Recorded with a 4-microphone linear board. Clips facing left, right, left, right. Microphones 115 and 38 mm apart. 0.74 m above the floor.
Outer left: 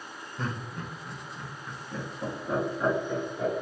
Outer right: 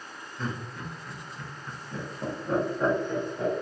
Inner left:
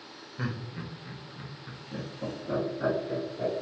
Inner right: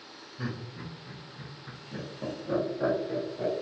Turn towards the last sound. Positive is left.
turn(degrees=-20)  # may be behind; listen again after turning